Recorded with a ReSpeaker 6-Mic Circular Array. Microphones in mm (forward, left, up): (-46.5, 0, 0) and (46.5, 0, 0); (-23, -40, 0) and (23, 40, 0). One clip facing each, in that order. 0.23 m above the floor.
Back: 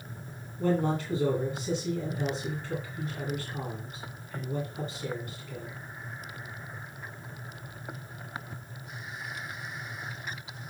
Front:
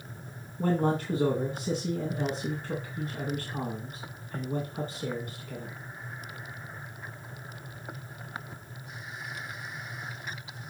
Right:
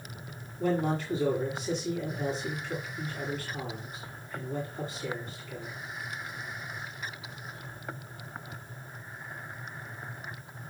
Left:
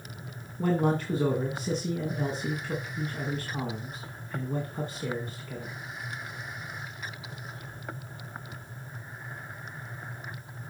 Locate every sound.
0.6 s a man speaking: 35° left, 2 m